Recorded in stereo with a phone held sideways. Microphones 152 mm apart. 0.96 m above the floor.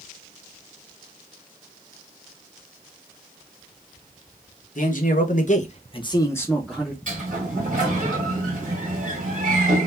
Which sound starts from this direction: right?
A sliding door, at 7.1 s.